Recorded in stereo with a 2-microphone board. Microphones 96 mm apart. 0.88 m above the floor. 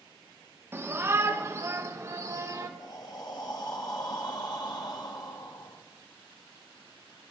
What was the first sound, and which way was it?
A shout, 25° right (ahead or behind).